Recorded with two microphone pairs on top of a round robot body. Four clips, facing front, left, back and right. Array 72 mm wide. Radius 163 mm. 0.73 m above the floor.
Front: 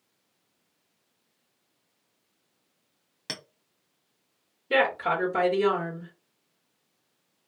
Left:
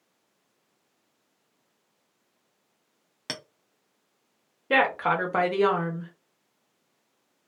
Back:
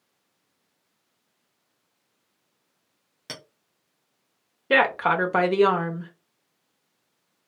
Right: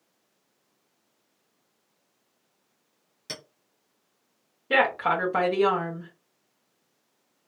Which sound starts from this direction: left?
A clink, at 3.3 s.